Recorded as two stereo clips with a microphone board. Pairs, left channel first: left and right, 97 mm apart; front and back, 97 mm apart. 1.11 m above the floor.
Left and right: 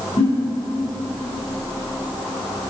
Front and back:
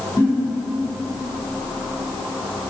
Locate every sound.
0.2 s a giggle: 65° left, 6 m